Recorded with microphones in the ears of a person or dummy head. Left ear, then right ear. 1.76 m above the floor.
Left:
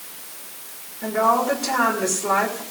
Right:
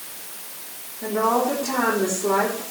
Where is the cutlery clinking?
I don't hear cutlery clinking.